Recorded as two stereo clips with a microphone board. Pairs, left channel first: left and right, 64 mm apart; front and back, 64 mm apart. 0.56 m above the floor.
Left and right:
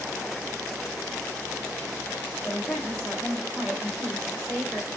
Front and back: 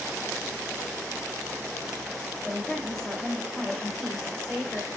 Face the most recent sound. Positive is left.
turn(degrees=70)